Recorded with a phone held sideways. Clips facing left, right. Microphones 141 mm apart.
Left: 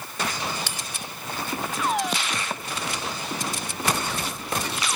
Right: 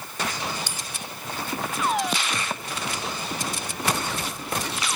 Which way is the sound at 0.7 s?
80° left.